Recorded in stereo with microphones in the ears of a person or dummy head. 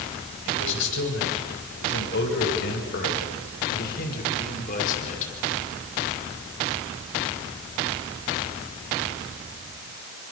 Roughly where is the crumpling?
No crumpling in this recording.